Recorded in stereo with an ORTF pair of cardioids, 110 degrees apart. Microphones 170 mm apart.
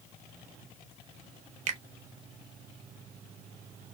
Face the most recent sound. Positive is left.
turn(degrees=-45)